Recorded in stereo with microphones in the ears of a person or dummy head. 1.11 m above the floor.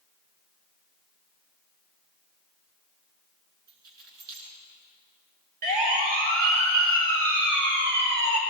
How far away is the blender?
No blender in this recording.